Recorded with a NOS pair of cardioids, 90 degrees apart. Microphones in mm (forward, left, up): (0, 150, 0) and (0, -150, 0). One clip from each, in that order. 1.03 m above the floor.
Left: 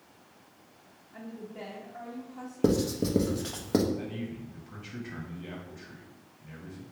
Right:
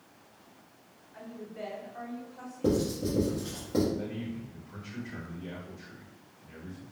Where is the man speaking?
65° left, 1.7 m.